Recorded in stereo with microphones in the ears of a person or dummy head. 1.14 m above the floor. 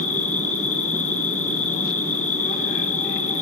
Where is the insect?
45° left (ahead or behind), 3 m.